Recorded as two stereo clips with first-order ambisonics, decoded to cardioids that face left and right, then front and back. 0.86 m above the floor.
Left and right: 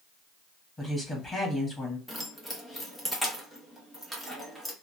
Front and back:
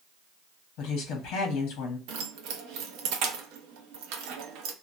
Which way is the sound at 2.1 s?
175° left.